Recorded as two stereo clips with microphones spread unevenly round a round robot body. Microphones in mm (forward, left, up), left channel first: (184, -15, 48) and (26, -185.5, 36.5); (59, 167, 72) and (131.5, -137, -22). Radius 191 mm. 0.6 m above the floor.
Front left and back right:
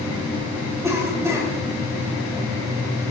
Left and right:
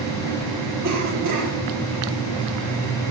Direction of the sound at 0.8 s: 55° right.